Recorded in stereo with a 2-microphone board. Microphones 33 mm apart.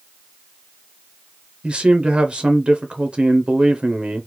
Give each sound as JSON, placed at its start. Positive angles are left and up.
{"t": 1.6, "sound": "a man speaking", "side_deg": -30, "distance_m": 0.5}